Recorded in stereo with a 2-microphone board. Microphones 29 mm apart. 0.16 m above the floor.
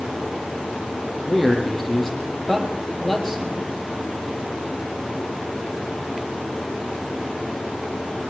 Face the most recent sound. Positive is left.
turn(degrees=5)  # may be behind; listen again after turning